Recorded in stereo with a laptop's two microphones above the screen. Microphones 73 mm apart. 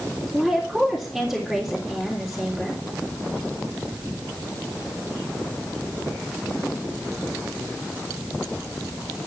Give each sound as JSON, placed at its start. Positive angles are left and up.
{"t": 0.3, "sound": "a woman speaking", "side_deg": -5, "distance_m": 3.0}